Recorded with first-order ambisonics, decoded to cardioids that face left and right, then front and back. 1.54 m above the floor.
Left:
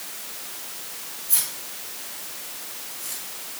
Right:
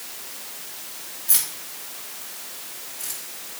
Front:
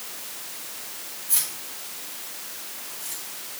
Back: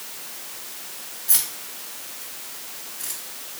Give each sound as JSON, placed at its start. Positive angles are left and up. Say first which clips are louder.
{"t": 1.3, "sound": "keys jangling", "louder": "right 2 dB, back 3 dB", "azimuth_deg": -130, "distance_m": 3.5}